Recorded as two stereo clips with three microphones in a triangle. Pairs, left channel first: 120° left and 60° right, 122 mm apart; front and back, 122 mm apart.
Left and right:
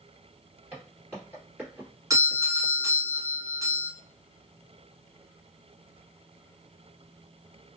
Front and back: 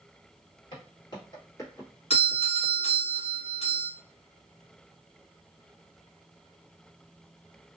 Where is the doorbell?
5° right, 0.9 m.